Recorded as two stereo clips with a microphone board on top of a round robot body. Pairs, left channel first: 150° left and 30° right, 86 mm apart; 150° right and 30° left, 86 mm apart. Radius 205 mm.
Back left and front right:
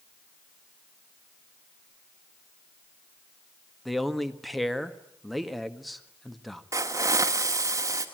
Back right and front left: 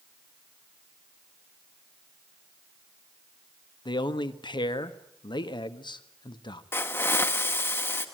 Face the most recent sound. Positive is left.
turn(degrees=-85)